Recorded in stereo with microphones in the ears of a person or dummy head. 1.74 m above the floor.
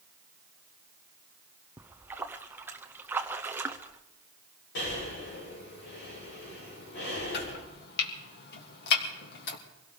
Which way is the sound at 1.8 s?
15° right (ahead or behind).